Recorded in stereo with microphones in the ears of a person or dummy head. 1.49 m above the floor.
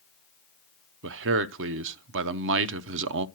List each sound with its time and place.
1.0 s a man speaking: 65° right (ahead or behind), 0.5 m